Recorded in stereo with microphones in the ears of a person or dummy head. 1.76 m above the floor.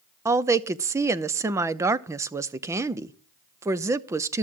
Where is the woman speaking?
15° right (ahead or behind), 0.5 m.